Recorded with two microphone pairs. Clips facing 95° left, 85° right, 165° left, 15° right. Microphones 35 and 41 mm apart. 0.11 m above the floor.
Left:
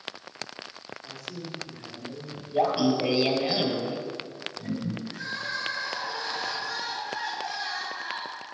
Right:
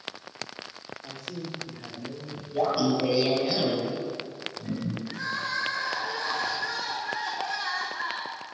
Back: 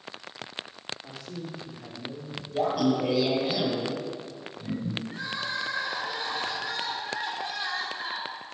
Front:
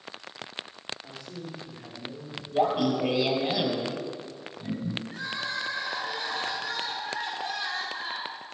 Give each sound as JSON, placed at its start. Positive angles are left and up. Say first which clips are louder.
{"t": 1.0, "sound": "a man speaking", "louder": "right 2 dB, back 1 dB", "azimuth_deg": -135, "distance_m": 3.0}
{"t": 2.5, "sound": "laughter", "louder": "left 1 dB, front 1 dB", "azimuth_deg": 35, "distance_m": 2.0}
{"t": 5.1, "sound": "crying", "louder": "right 2 dB, even", "azimuth_deg": -135, "distance_m": 3.5}